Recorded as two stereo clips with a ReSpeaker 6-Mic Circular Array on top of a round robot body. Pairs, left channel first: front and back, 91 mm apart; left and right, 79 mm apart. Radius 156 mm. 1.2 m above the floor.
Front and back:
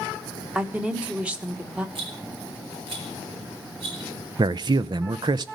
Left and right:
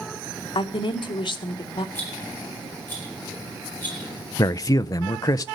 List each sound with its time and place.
0.6 s a woman speaking: 105° left, 1.6 m
1.9 s a rattle: 155° left, 5 m
4.4 s a man speaking: 135° left, 0.5 m